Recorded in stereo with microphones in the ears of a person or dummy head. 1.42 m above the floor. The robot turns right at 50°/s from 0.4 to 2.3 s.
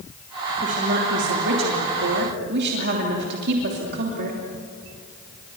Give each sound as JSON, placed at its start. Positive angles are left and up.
{"t": 0.6, "sound": "a woman speaking", "azimuth_deg": -150, "distance_m": 3.0}